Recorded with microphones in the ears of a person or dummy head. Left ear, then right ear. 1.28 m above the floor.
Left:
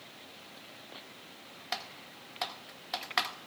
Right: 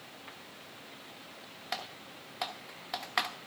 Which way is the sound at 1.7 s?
Centre (ahead or behind).